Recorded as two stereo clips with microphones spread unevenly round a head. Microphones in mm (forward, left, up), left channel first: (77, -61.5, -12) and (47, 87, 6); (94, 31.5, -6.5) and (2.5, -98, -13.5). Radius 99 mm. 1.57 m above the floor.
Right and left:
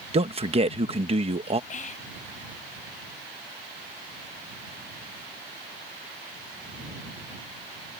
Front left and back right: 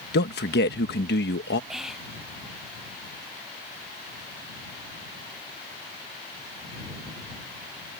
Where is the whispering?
35° right.